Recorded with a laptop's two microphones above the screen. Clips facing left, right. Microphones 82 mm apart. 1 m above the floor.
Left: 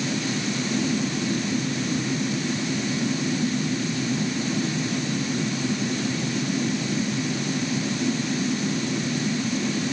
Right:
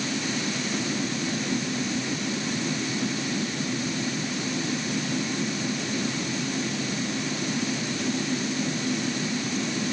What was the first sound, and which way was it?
Only background noise.